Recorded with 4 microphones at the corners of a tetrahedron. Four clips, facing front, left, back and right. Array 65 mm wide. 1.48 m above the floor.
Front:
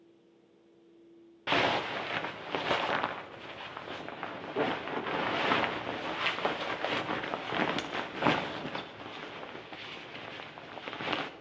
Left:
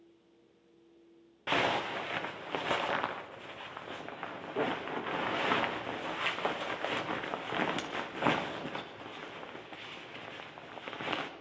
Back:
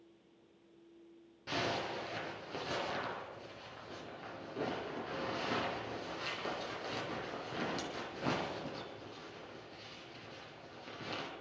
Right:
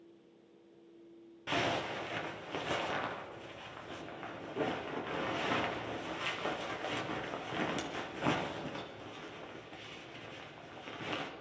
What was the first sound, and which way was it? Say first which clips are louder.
A zipper: left 4 dB, front 9 dB; 30° left.